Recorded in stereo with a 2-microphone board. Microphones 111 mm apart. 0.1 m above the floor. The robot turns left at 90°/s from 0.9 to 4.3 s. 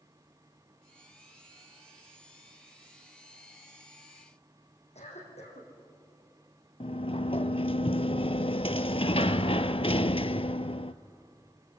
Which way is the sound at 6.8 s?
55° left (ahead or behind).